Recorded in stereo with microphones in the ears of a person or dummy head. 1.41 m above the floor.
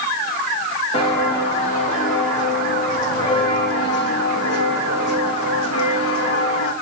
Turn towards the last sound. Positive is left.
turn(degrees=75)  # may be behind; listen again after turning